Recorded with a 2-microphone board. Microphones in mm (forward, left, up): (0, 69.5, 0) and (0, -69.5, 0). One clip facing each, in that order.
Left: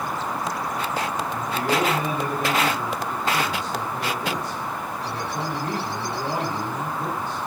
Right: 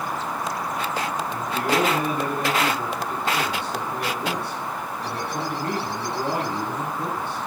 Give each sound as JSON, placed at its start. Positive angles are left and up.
{"t": 1.3, "sound": "a man speaking", "side_deg": -65, "distance_m": 10.0}